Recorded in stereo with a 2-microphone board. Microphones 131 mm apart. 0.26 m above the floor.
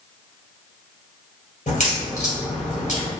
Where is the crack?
75° left (ahead or behind), 2.0 m.